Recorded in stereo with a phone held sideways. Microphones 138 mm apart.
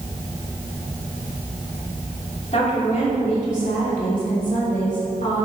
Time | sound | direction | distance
2.5 | a woman speaking | 50° left (ahead or behind) | 2.5 m